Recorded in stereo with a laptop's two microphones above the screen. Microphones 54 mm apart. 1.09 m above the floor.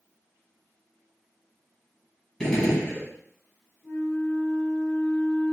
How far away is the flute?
About 1.8 m.